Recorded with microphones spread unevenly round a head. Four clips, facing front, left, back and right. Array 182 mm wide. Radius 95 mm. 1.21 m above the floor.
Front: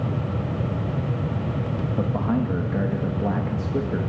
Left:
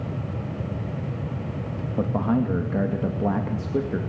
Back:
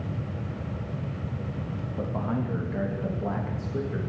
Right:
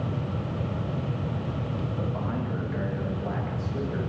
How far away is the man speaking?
About 2 m.